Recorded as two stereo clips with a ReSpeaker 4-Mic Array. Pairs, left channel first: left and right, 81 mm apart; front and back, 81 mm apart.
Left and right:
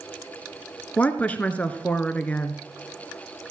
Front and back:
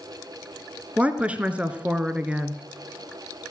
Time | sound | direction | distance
1.0 | a woman speaking | 135° left | 1.1 m